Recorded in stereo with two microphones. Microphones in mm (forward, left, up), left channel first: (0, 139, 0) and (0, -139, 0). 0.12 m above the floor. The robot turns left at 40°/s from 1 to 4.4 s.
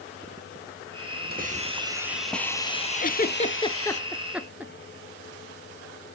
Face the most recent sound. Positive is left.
turn(degrees=-5)  # may be behind; listen again after turning